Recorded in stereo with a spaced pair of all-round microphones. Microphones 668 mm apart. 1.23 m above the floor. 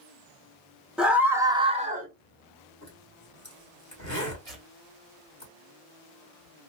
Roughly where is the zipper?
Left.